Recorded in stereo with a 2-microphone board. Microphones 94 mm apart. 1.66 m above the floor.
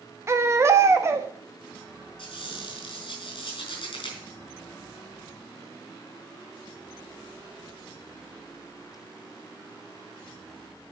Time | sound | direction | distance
0.3 | a baby crying | 30° right (ahead or behind) | 0.7 m
2.2 | a squeak | 65° left (ahead or behind) | 4 m